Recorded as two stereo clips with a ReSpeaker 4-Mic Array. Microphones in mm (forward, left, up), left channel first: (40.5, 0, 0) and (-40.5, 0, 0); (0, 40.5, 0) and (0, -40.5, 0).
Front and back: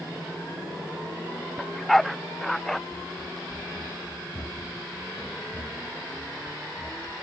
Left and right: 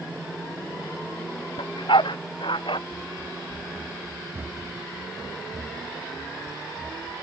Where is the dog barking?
85° left.